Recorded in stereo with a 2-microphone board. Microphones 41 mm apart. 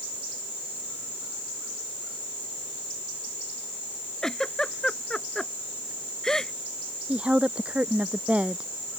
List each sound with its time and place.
4.2 s a giggle: 15° left (ahead or behind)
7.1 s a woman speaking: 30° right (ahead or behind)